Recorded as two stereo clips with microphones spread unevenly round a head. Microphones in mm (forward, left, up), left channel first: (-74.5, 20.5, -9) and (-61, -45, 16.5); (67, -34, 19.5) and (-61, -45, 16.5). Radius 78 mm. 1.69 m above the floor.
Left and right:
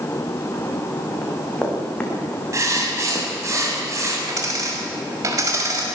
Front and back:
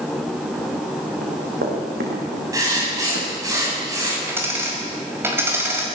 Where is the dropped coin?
105° right, 5.5 m.